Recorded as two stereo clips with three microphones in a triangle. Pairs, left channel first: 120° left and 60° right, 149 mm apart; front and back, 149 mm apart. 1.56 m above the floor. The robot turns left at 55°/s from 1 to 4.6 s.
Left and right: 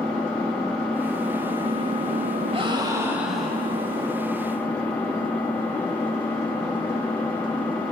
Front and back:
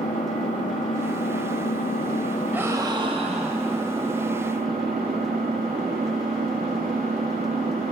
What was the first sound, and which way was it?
An engine running, 35° left.